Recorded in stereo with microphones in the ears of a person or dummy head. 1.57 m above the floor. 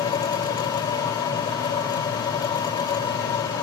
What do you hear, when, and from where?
0.0 s a machine running: 25° left (ahead or behind)